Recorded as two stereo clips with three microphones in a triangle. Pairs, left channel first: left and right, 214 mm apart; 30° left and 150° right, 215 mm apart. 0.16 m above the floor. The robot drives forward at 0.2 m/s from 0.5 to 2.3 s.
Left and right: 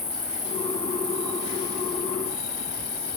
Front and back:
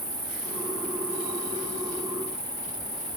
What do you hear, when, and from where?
0.0 s an insect: 135° right, 0.8 m; by 3.2 s 150° right, 1.1 m